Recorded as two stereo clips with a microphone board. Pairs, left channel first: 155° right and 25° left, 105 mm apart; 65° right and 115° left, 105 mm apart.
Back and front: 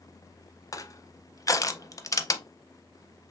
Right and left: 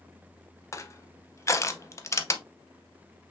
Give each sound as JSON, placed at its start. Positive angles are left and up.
{"t": 0.7, "sound": "crushing", "azimuth_deg": -115, "distance_m": 0.5}